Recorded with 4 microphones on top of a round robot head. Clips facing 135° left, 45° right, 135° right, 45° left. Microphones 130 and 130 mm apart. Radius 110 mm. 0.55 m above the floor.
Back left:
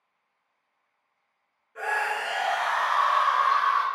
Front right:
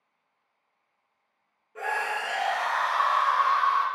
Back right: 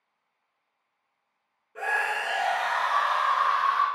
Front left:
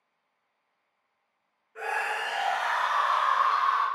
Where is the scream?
90° right, 0.7 m.